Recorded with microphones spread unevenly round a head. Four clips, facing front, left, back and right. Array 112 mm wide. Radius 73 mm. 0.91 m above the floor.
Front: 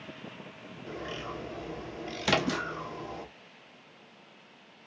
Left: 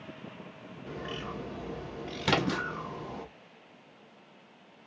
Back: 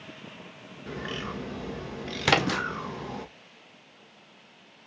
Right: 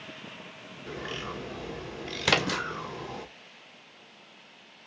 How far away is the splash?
About 2 m.